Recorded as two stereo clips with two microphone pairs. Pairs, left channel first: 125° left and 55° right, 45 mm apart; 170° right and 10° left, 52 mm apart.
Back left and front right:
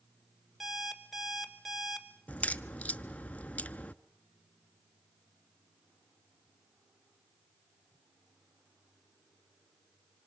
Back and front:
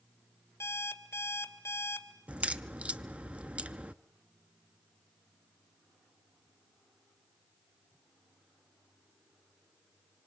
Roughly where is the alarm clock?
Behind right.